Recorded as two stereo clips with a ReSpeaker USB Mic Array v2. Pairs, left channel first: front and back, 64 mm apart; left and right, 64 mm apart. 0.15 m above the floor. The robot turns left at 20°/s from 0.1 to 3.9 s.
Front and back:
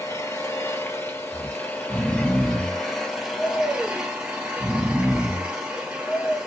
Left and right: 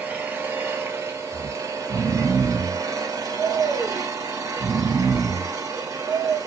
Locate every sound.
0.0 s an engine running: 30° right, 1.3 m; by 6.5 s 105° right, 1.3 m
1.3 s snoring: 85° right, 1.7 m; by 6.4 s 135° right, 1.7 m